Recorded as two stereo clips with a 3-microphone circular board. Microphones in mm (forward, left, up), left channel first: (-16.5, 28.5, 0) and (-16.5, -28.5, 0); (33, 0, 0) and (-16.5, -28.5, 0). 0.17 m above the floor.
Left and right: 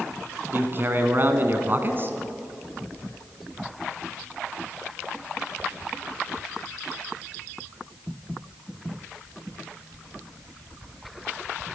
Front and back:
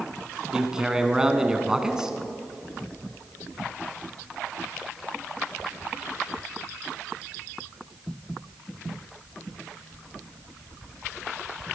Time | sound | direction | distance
0.5 | a man speaking | 75° right | 1.3 m